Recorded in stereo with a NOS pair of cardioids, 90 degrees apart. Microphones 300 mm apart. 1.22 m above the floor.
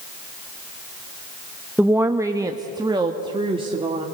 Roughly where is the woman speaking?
Ahead.